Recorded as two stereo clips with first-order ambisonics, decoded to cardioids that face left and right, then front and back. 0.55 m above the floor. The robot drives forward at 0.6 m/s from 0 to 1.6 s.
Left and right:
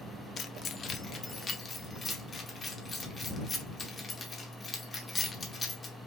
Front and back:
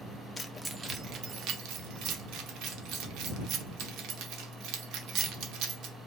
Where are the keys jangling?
65° left, 0.5 m; by 6.0 s 160° left, 0.8 m.